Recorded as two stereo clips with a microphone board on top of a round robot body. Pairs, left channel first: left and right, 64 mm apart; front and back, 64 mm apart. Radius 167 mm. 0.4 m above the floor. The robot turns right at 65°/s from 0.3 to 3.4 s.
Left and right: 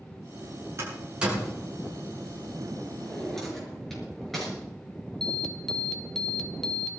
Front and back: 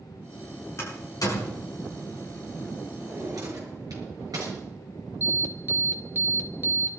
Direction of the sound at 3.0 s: 150° left.